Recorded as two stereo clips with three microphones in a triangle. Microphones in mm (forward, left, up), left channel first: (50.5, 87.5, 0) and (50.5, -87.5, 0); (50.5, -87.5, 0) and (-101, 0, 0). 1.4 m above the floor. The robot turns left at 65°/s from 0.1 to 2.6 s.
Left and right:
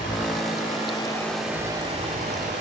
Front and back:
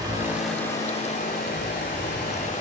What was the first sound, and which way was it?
Running water, 85° left.